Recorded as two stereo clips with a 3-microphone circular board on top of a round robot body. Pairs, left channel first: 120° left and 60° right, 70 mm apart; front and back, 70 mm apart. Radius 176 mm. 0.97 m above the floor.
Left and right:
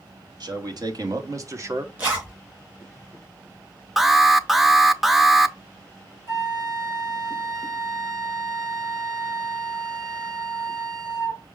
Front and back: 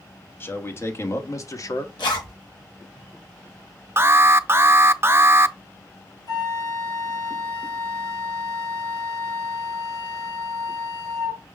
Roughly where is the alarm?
Behind right.